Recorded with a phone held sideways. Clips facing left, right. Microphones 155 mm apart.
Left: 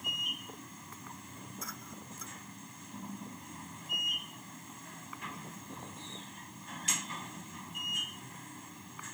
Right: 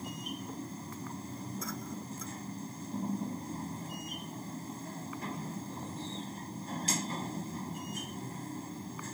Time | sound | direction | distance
0.0 | a machine running | 35° right (ahead or behind) | ?